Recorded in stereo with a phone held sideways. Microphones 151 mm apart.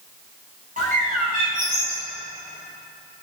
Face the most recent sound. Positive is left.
turn(degrees=-60)  # may be behind; listen again after turning